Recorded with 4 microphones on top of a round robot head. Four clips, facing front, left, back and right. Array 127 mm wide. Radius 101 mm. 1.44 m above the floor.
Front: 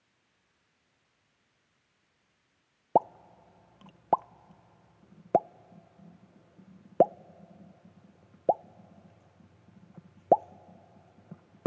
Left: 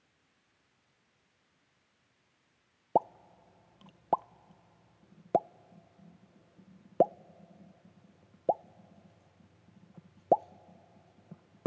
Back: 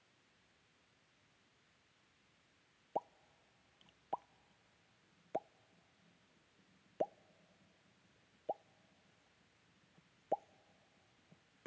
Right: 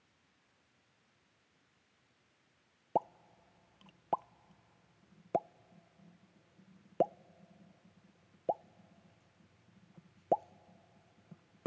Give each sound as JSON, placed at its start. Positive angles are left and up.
{"t": 3.0, "sound": "a pop", "azimuth_deg": 25}